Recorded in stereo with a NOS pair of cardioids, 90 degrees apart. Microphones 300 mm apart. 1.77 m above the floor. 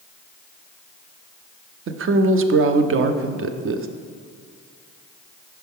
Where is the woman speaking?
45° right, 0.6 m.